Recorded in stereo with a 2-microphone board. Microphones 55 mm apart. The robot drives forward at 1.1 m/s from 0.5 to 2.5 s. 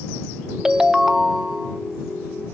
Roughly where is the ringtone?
Centre.